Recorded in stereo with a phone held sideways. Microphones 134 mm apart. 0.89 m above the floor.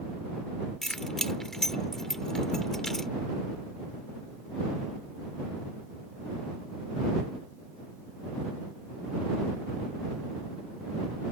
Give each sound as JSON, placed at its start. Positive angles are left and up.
{"t": 0.8, "sound": "keys jangling", "side_deg": 5}